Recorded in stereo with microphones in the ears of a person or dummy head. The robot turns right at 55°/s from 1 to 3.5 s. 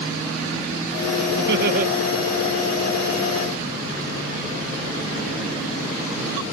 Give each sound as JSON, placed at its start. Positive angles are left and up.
{"t": 1.4, "sound": "laughter", "side_deg": -75}